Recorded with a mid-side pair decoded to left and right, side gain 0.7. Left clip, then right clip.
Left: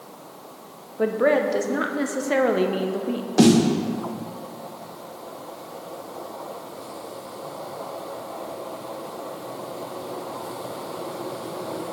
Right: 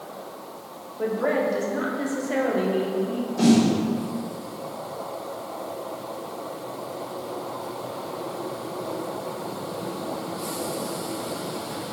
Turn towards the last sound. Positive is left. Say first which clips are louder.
# left 3 dB
turn(degrees=55)